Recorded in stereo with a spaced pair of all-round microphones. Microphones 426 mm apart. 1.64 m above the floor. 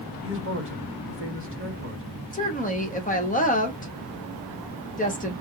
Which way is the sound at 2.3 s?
20° left (ahead or behind).